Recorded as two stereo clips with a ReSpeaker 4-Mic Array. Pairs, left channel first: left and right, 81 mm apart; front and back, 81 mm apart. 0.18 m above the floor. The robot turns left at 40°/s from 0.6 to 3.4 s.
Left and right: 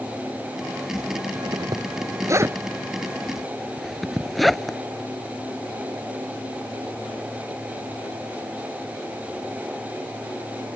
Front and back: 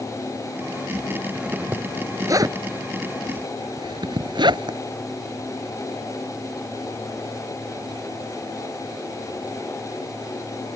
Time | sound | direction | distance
1.3 | a zipper | 95° right | ?